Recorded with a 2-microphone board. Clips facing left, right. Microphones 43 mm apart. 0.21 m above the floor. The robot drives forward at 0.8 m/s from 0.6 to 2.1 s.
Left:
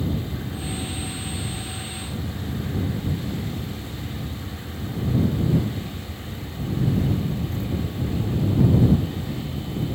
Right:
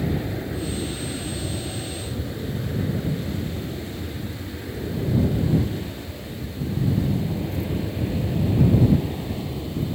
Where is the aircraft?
65° right (ahead or behind); by 9.9 s 35° right (ahead or behind).